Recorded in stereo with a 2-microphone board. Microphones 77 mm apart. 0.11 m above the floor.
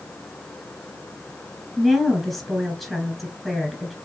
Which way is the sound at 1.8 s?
5° right (ahead or behind).